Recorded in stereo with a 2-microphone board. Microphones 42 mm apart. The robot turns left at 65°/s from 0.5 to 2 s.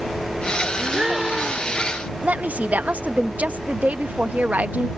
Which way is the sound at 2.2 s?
40° right (ahead or behind).